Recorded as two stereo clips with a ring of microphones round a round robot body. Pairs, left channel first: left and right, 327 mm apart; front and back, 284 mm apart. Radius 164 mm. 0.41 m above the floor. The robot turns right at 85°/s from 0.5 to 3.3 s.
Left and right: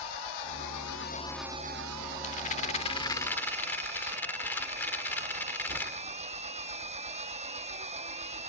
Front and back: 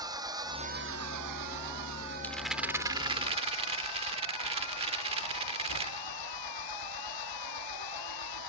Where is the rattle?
75° left; by 6.1 s 165° left.